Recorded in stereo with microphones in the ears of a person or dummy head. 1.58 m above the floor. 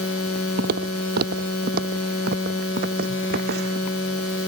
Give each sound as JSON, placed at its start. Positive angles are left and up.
{"t": 0.6, "sound": "footsteps", "side_deg": -50}